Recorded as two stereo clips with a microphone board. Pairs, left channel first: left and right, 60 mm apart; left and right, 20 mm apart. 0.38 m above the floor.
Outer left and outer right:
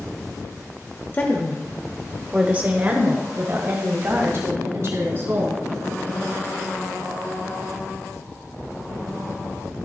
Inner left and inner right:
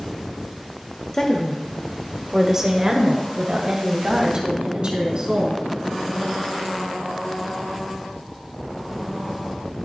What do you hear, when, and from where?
1.1 s a woman speaking: 30° left (ahead or behind), 0.9 m; by 5.6 s 55° right (ahead or behind), 2.5 m